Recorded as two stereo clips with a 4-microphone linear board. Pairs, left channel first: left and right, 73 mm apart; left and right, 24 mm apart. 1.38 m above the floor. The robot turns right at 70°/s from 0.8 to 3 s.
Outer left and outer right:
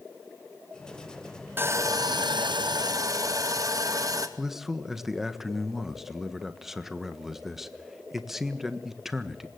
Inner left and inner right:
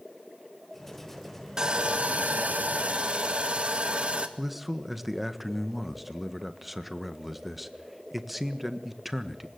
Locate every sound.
1.6 s sawing: 150° right, 2 m; by 4.3 s 50° right, 2 m
4.4 s a man speaking: 5° right (ahead or behind), 1.5 m